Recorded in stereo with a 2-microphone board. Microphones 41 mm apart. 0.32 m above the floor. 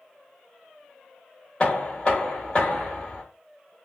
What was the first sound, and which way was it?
Knocking, 25° left (ahead or behind).